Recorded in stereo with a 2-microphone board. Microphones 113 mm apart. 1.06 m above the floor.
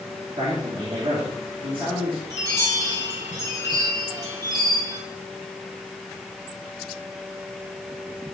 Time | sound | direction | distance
0.4 | a man speaking | 45° right (ahead or behind) | 3 m
2.3 | a chime | 35° right (ahead or behind) | 3 m